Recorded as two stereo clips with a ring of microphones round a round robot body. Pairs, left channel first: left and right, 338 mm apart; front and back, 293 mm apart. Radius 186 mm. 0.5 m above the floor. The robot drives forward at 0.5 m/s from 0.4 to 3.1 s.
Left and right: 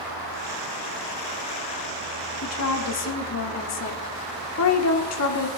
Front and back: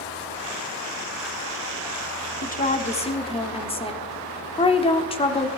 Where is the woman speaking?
55° left, 1.9 m; by 5.5 s 65° left, 1.7 m.